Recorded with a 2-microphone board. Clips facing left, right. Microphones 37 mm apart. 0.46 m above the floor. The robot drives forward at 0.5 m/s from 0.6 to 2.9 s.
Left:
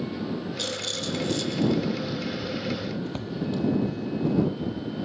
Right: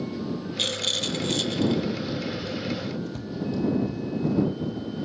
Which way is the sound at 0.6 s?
50° right (ahead or behind).